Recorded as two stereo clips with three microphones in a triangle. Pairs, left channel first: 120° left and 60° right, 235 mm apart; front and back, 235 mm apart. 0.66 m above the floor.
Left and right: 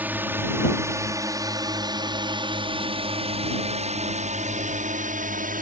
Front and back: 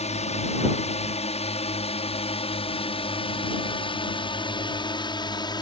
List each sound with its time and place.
0.0 s a drone: 15° left; by 5.6 s 60° right